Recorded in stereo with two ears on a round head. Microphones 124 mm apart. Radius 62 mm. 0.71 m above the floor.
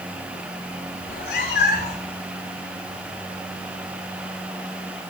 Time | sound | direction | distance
1.0 | a cat meowing | 75° left (ahead or behind) | 5 m